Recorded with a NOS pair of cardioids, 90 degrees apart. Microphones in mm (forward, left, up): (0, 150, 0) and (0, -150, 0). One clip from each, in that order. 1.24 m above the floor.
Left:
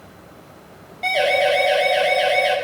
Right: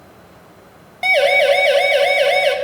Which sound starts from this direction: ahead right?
A siren, at 1.0 s.